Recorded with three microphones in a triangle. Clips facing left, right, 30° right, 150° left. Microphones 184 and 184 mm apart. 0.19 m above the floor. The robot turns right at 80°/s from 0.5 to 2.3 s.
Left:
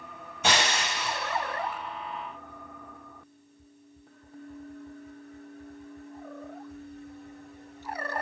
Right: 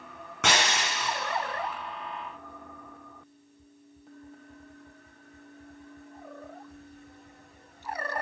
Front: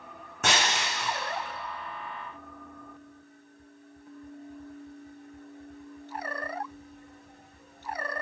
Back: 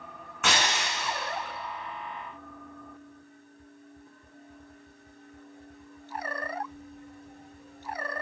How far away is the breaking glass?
About 3.5 m.